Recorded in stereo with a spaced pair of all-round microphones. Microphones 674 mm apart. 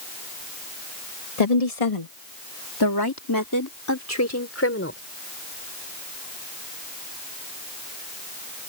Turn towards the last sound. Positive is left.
turn(degrees=20)  # may be behind; listen again after turning